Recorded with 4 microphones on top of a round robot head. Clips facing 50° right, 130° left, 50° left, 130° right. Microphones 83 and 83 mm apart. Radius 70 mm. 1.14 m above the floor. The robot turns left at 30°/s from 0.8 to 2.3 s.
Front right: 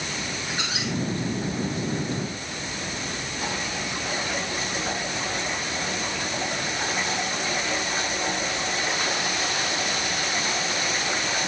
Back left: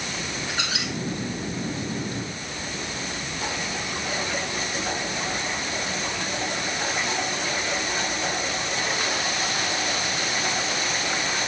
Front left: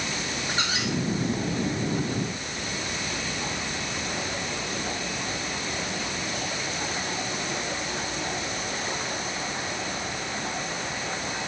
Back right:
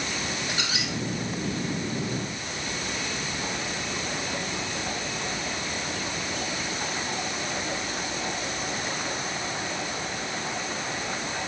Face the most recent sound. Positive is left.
turn(degrees=60)